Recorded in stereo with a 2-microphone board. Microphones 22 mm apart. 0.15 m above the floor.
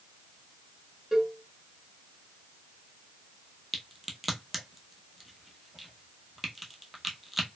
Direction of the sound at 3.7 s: 5° right (ahead or behind).